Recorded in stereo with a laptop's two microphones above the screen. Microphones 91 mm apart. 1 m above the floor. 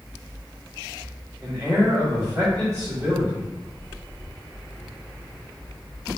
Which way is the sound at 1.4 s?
40° right (ahead or behind).